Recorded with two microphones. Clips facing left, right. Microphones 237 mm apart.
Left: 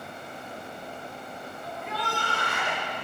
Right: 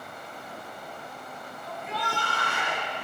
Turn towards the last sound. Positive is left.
turn(degrees=60)  # may be behind; listen again after turning